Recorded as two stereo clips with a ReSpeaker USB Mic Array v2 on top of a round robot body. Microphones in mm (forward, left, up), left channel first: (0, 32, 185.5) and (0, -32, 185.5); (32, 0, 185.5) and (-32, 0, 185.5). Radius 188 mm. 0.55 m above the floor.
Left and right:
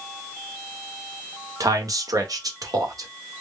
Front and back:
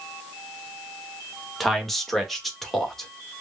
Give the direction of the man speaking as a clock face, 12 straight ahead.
3 o'clock.